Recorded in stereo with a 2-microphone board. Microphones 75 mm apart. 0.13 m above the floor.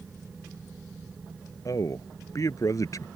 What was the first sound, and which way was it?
A man speaking, 50° left (ahead or behind).